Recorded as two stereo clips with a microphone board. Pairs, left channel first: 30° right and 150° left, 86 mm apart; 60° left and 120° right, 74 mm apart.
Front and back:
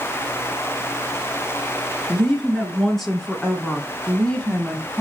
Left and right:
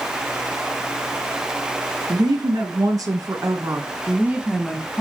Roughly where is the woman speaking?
Behind right.